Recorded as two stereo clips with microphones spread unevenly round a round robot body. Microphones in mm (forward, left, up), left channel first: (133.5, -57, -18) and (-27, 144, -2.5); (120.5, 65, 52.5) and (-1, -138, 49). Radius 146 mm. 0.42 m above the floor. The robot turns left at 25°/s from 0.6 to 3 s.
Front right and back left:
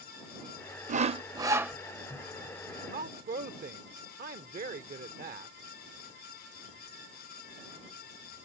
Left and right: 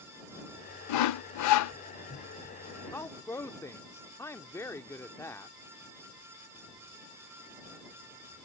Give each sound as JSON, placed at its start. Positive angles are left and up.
{"t": 0.9, "sound": "sawing", "azimuth_deg": 65}
{"t": 2.9, "sound": "a woman speaking", "azimuth_deg": 130}